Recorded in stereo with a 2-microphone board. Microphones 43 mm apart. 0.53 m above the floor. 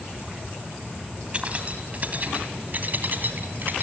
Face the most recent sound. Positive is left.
turn(degrees=-50)  # may be behind; listen again after turning